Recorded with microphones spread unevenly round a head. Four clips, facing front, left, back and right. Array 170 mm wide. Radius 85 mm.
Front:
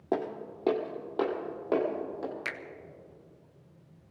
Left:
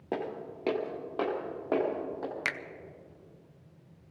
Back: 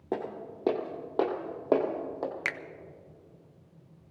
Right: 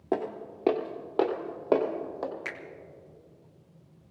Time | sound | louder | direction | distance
0.1 | footsteps | right 4 dB, front 2 dB | 110° right | 1.4 m
2.5 | a finger snap | left 4 dB, back 3 dB | 120° left | 0.5 m